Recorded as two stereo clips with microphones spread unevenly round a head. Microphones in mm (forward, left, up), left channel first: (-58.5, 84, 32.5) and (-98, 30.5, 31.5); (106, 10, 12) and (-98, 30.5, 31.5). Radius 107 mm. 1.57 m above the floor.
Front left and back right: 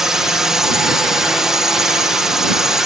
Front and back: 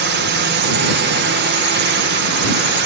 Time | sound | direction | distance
0.0 | a drone | 150° left | ?